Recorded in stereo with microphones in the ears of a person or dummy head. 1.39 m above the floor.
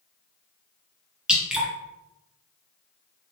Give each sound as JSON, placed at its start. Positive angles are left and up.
{"t": 1.3, "sound": "dripping", "side_deg": -5, "distance_m": 0.7}